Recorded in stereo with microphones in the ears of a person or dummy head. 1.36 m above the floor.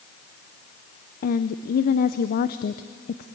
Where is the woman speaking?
45° left (ahead or behind), 0.6 m.